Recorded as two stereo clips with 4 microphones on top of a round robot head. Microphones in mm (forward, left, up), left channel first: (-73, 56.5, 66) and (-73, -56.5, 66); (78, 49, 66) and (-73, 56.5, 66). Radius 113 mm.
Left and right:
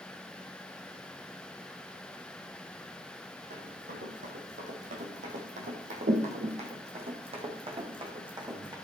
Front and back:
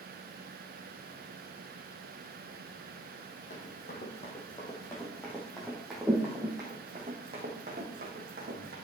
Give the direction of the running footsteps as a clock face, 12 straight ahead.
2 o'clock.